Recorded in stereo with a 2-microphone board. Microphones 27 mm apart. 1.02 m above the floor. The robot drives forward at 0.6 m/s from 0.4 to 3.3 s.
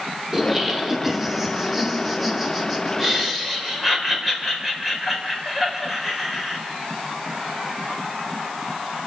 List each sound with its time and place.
0.3 s laughter: 15° right (ahead or behind), 2.5 m; by 6.6 s 10° right (ahead or behind), 4.5 m